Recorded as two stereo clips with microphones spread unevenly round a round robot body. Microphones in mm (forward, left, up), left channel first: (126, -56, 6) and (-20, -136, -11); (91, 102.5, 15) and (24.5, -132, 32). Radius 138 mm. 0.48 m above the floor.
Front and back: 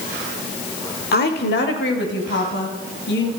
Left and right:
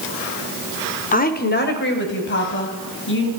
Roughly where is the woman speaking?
Ahead left.